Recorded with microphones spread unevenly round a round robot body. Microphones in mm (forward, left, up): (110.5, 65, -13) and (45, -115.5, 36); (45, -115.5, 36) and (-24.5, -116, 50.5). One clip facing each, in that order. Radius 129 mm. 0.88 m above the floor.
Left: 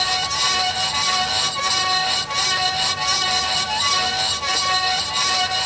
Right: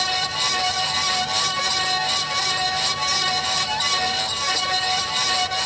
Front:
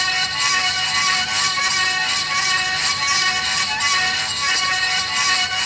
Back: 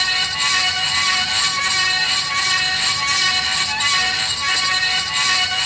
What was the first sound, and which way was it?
Only background noise.